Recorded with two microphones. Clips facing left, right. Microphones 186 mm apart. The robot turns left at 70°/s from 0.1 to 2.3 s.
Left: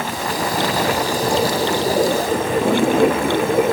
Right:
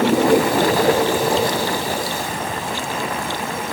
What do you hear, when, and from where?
0.0 s running water: 90° right; by 3.7 s 115° left